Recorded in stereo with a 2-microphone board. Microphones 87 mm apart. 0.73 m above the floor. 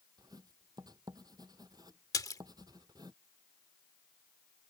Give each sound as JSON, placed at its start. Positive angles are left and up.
{"t": 0.2, "sound": "writing", "side_deg": -50}
{"t": 2.1, "sound": "a splash", "side_deg": 45}